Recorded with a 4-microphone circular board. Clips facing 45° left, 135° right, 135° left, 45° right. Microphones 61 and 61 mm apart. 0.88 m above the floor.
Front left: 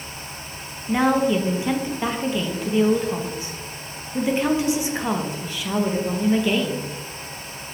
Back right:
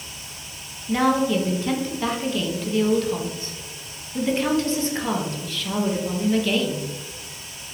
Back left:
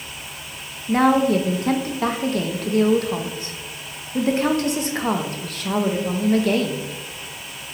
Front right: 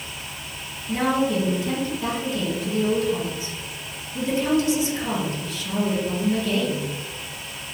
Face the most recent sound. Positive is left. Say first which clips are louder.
# front left 1 dB, back left 5 dB
turn(degrees=115)